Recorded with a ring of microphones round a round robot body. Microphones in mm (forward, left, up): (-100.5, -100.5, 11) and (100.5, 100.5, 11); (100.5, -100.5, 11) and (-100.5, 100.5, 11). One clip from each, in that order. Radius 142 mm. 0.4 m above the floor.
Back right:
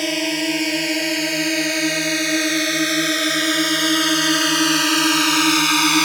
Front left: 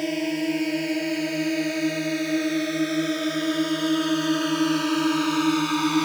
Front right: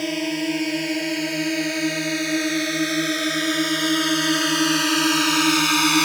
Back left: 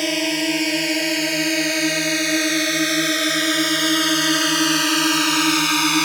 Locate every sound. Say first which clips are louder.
0.0 s a drone: back right 5 dB, back left 4 dB; 165° right; by 6.0 s 135° right